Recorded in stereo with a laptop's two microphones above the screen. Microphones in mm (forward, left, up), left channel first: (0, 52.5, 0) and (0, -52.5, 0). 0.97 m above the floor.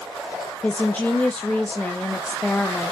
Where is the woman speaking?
15° left (ahead or behind), 0.7 m.